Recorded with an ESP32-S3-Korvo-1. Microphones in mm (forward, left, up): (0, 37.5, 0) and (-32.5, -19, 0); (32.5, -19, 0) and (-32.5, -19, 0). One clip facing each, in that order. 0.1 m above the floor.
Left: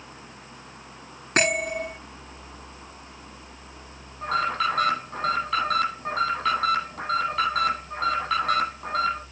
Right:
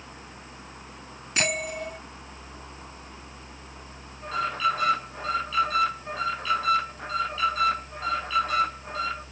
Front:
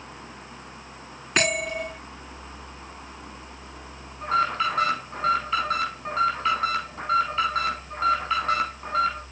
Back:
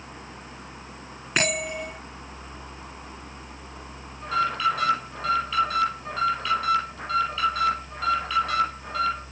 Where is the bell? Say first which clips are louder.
Left 5 dB, front 2 dB; 90° left, 7 m.